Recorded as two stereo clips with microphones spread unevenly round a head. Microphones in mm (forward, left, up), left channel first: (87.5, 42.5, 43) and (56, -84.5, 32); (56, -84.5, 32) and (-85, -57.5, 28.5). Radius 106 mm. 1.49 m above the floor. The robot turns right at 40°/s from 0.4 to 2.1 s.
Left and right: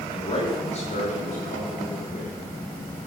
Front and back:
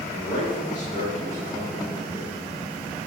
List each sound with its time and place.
0.1 s a man speaking: 30° left, 7.5 m; by 2.4 s 100° left, 7.5 m